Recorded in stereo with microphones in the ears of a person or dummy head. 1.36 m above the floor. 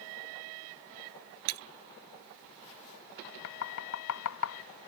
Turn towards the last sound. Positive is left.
turn(degrees=70)  # may be behind; listen again after turning